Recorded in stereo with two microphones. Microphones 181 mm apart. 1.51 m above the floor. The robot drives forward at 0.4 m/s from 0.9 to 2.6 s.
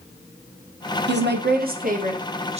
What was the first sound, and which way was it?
A woman speaking, 75° right (ahead or behind).